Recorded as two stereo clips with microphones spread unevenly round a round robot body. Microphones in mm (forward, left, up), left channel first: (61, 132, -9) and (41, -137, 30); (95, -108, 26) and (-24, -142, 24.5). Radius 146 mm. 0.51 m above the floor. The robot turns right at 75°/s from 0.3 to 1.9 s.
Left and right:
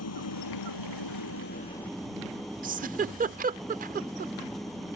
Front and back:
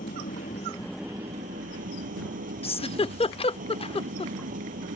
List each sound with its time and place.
0.0 s an engine running: 55° left; by 5.0 s 175° left
2.6 s a giggle: 30° right